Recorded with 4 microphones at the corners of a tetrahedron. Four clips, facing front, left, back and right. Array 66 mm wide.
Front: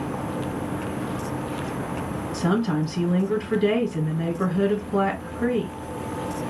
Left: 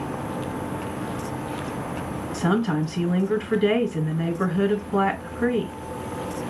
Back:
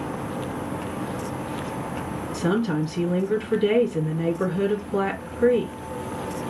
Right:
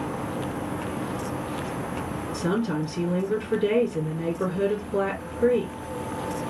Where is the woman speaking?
60° left, 1.4 m.